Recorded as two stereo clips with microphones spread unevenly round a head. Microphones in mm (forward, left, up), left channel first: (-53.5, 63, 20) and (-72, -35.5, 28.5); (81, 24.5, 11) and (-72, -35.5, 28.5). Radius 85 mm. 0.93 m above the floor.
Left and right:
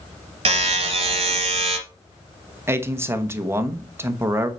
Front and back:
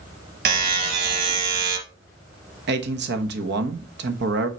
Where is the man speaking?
165° right, 1.2 m.